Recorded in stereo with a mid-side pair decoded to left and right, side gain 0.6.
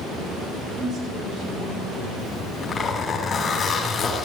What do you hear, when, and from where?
0.8 s a woman speaking: 40° right, 7.5 m
2.2 s a zipper: 30° left, 4 m